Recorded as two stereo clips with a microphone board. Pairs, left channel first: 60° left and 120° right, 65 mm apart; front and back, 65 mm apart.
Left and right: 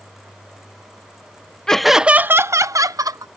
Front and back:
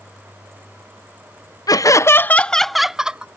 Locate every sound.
1.7 s laughter: 20° right; by 3.3 s 105° right